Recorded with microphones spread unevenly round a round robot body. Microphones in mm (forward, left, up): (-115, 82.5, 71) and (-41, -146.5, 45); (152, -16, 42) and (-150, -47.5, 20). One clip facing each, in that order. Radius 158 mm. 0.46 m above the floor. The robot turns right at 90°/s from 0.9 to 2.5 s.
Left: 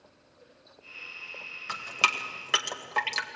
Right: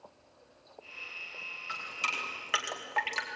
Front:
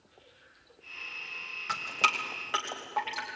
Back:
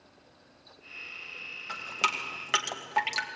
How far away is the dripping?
About 2 m.